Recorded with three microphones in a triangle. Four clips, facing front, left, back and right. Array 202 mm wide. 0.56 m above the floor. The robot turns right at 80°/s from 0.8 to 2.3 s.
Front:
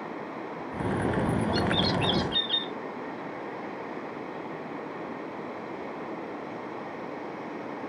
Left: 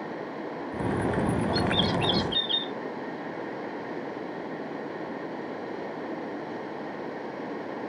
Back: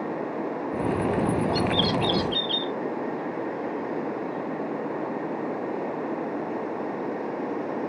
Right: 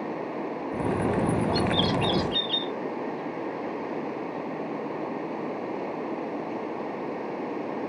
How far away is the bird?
About 0.5 m.